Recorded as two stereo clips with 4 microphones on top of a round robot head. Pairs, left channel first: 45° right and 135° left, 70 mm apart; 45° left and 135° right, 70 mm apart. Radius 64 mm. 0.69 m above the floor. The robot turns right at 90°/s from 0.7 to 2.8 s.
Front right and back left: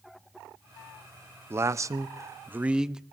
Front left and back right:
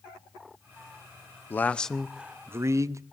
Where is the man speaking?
95° left, 0.6 m; by 3.0 s 150° right, 0.6 m.